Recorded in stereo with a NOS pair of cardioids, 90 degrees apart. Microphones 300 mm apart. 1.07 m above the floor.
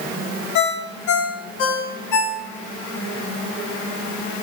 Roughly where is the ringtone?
Left.